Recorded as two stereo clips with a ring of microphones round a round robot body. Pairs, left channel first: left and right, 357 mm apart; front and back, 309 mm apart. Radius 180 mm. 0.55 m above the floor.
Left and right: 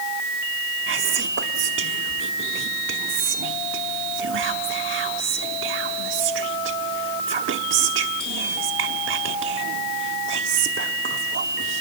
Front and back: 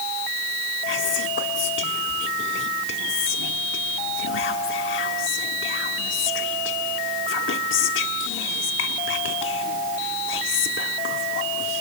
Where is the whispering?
40° right, 1.1 m.